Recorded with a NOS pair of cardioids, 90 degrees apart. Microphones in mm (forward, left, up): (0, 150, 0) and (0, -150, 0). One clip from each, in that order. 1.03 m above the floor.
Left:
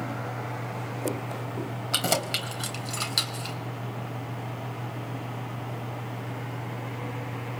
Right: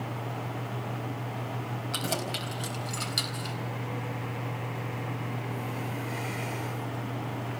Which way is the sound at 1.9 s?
55° left.